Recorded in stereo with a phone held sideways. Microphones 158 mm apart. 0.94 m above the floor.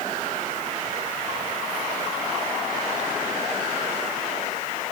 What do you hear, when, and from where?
Only background noise.